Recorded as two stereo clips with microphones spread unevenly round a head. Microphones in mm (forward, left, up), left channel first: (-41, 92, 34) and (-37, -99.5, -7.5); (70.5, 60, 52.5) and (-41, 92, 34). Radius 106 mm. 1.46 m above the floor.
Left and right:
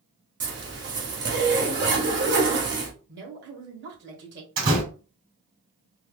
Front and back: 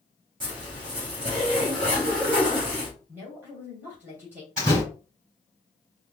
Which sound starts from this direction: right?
A door slam, at 4.6 s.